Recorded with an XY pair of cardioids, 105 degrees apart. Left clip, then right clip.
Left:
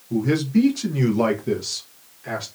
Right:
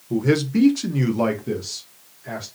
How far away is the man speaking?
About 0.8 m.